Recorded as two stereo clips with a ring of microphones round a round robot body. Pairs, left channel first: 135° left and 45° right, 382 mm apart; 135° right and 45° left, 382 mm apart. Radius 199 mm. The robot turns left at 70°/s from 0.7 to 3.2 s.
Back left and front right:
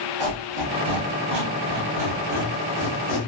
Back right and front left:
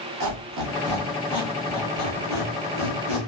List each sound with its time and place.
0.2 s a squeak: 15° right, 1.7 m; by 3.2 s 170° left, 1.7 m